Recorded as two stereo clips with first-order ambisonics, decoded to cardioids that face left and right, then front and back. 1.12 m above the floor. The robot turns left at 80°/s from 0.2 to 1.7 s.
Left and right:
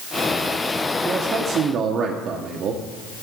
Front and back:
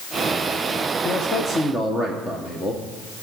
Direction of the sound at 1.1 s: 25° right.